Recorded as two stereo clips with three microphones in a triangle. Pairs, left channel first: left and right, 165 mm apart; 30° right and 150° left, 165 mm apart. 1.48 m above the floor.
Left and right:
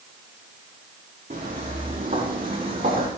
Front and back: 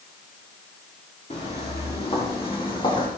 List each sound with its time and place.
1.3 s footsteps: 70° right, 5 m; by 3.1 s 85° right, 4 m